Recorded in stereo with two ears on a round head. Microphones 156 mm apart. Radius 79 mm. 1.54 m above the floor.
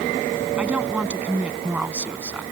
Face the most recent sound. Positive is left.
turn(degrees=-10)  # may be behind; listen again after turning